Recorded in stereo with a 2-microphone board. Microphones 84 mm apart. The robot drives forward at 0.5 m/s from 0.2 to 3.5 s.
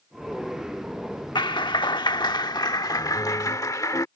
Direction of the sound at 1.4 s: 65° left (ahead or behind).